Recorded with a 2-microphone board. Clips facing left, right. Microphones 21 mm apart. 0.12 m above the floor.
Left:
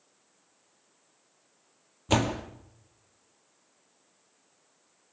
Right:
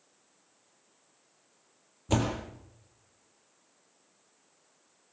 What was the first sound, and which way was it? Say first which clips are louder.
A door slam: left 3 dB; 30° left (ahead or behind).